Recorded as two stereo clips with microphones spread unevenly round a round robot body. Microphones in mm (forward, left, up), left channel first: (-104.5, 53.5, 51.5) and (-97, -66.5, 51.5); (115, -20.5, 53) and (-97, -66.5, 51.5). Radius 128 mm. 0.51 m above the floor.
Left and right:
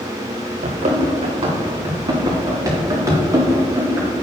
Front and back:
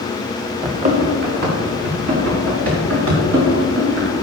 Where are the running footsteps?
105° right, 2.5 m; by 4.1 s 155° right, 6.5 m.